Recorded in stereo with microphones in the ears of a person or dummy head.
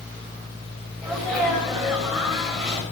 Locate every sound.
1.0 s a sneeze: 5° left (ahead or behind), 6 m